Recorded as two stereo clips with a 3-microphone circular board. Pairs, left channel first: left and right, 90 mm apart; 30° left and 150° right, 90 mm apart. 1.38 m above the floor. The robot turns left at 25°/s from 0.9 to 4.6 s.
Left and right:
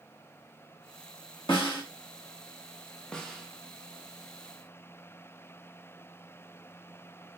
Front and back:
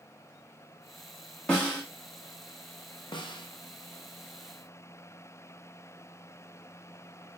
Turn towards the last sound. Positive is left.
turn(degrees=-25)